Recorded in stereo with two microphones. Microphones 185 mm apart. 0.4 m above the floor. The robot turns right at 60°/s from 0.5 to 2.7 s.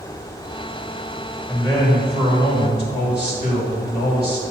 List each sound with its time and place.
1.5 s a man speaking: 5° left, 1.9 m; by 4.4 s 80° left, 1.9 m